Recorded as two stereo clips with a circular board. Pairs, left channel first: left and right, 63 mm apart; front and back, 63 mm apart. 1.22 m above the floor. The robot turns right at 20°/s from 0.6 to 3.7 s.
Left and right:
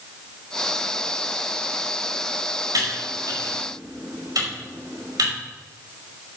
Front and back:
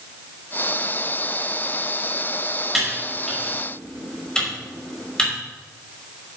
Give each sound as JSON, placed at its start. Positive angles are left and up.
{"t": 2.7, "sound": "typing on a keyboard", "azimuth_deg": -95, "distance_m": 5.5}